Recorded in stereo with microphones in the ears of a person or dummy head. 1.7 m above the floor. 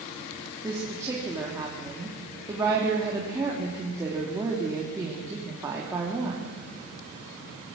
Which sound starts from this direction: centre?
A woman speaking, at 0.6 s.